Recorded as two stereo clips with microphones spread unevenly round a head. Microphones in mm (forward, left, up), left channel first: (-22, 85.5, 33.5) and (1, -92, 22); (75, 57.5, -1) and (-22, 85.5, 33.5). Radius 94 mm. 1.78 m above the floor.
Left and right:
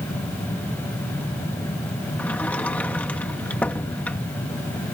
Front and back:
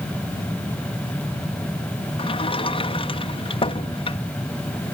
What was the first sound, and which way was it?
A sliding door, 15° left.